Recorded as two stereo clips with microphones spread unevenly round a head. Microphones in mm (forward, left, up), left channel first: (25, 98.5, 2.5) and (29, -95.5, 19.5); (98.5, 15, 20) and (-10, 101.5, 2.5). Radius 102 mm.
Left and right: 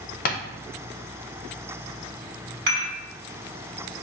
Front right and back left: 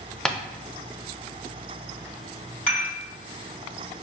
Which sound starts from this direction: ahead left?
Tapping, at 0.2 s.